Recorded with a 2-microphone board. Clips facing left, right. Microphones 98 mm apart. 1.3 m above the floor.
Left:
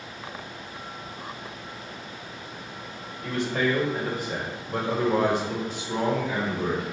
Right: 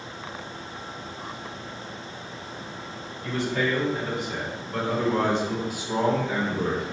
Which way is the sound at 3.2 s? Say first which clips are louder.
Left 1 dB; 65° left (ahead or behind).